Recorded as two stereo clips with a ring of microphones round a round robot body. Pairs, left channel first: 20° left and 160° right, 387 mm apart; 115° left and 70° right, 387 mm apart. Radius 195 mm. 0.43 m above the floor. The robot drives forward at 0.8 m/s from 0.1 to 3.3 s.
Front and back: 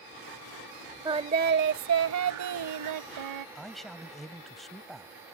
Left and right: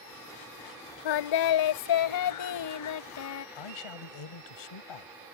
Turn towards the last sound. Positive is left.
turn(degrees=110)